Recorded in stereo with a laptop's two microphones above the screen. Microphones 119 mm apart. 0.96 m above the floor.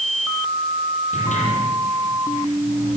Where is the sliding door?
85° left, 8.5 m.